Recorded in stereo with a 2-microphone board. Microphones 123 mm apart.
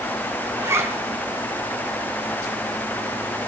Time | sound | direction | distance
0.6 | a zipper | 20° right (ahead or behind) | 2 m